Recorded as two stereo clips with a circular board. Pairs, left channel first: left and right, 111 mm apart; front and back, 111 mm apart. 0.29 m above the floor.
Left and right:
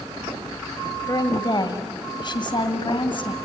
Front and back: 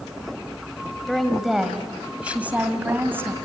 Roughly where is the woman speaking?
Left.